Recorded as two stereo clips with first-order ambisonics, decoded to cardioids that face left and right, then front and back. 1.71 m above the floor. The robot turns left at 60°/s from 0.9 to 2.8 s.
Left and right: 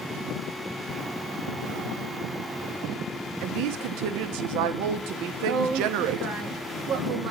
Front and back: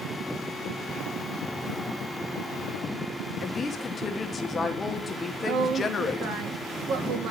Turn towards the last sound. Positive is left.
turn(degrees=-150)